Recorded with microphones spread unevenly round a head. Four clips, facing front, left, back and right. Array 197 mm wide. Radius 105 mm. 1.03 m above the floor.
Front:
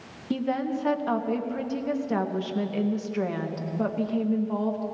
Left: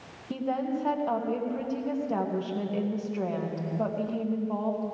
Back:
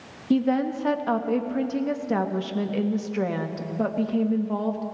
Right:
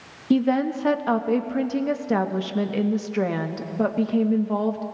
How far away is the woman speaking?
About 1.1 m.